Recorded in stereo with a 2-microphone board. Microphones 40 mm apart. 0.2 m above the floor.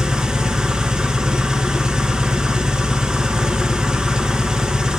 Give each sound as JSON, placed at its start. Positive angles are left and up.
{"t": 0.0, "sound": "an engine running", "side_deg": -20, "distance_m": 2.0}